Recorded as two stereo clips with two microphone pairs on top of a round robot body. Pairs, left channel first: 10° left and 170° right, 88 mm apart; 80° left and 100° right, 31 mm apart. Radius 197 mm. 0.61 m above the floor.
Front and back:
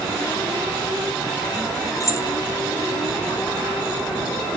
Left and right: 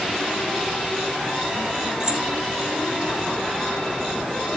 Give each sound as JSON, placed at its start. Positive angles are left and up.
{"t": 2.0, "sound": "keys jangling", "azimuth_deg": -35, "distance_m": 1.9}